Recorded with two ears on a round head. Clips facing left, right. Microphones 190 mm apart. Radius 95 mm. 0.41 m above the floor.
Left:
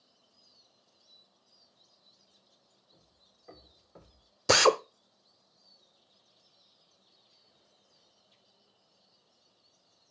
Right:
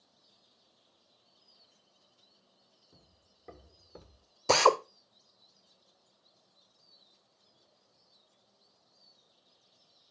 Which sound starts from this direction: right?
Footsteps, at 2.9 s.